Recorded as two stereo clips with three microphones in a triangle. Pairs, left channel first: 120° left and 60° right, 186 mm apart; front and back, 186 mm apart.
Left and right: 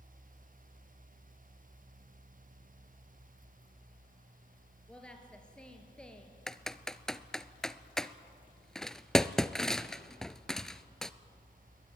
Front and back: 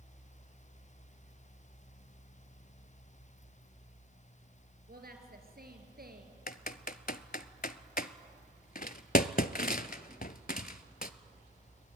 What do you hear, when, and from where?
4.9 s a woman speaking: 155° right, 3.5 m
6.5 s typing on a keyboard: 35° left, 0.6 m